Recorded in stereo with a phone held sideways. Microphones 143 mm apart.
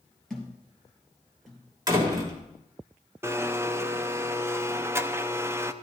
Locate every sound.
0.3 s a thud: centre (ahead or behind), 4 m
1.9 s a door slam: 25° right (ahead or behind), 3.5 m
3.2 s a blender: 20° right (ahead or behind), 0.6 m